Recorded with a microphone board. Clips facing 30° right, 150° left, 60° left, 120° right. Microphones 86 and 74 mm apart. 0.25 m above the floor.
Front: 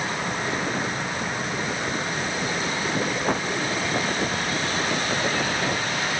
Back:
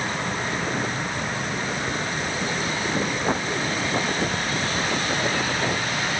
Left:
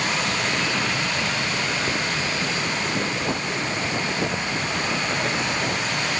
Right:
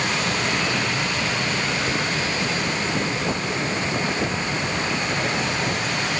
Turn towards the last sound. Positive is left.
No sound to turn to.